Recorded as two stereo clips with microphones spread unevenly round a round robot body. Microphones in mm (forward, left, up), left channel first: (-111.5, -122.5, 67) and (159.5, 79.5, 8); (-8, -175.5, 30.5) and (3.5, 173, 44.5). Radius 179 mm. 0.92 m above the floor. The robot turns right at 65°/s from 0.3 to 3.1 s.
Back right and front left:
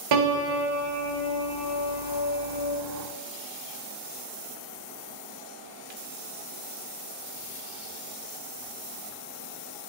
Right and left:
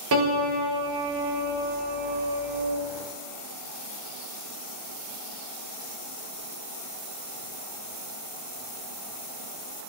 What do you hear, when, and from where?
0.1 s a piano: 35° left, 1.0 m; by 2.8 s 165° right, 1.0 m